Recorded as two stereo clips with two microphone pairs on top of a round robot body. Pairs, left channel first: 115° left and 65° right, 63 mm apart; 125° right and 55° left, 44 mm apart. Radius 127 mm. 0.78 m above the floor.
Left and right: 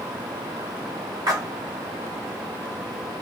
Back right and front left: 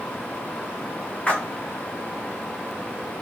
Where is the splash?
65° right, 0.8 m.